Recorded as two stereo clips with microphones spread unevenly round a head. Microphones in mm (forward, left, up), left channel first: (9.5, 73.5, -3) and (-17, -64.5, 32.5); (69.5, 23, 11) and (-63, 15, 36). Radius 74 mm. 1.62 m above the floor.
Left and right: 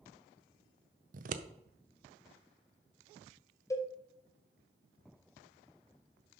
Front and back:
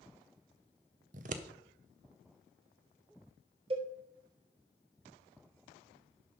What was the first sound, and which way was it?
Scissors, 135° right.